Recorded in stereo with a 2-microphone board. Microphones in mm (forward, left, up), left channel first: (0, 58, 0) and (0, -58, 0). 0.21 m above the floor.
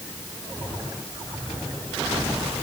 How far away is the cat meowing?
No cat meowing in this recording.